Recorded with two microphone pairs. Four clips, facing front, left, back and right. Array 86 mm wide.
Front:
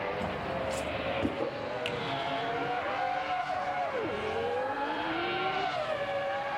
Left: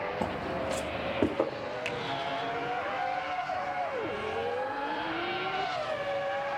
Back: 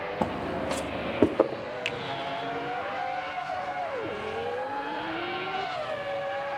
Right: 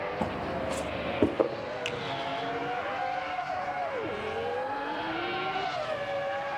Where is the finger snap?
145° left, 1.0 m.